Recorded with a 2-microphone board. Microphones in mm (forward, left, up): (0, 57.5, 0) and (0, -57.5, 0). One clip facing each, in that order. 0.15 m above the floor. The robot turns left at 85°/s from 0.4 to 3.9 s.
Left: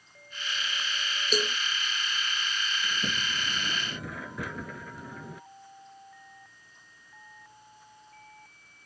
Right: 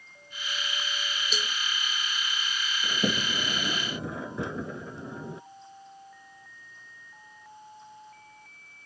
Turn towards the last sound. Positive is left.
turn(degrees=-150)